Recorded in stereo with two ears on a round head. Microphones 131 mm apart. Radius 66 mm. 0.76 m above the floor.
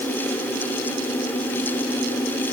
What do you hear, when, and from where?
Only background noise.